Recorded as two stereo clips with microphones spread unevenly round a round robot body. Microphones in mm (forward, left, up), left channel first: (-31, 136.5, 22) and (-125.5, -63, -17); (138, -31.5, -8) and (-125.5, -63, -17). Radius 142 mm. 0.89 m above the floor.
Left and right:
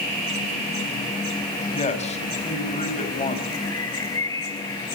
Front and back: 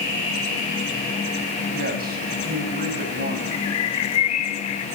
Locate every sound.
1.7 s a man speaking: 125° left, 6 m
3.5 s a bird: 10° right, 2 m